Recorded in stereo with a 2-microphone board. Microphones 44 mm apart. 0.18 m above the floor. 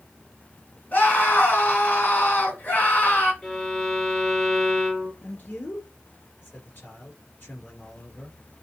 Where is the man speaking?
50° left (ahead or behind), 2.5 m.